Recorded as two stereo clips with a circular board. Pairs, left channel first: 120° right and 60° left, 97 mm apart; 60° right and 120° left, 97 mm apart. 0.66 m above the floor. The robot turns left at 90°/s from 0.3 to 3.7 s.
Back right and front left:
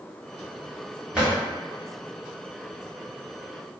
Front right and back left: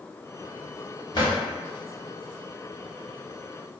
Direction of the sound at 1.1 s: 20° right.